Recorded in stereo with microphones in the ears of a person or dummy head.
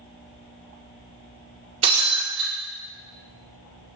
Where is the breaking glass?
35° right (ahead or behind), 3 m.